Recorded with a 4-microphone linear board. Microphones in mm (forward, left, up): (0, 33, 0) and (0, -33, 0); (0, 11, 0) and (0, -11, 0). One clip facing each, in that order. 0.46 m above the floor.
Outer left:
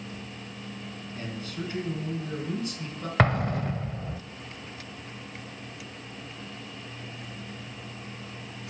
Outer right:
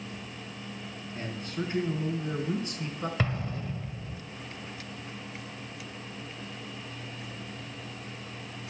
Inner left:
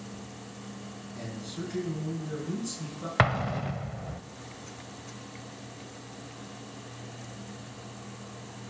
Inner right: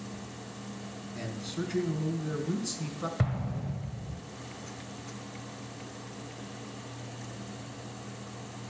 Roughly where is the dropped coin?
I don't hear a dropped coin.